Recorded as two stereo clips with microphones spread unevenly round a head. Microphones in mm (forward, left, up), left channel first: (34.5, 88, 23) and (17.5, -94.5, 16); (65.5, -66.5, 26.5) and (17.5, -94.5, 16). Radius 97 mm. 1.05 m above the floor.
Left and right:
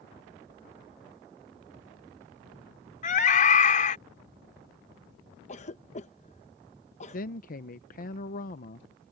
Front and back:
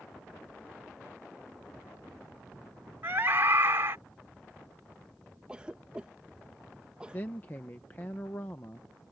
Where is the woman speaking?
95° left.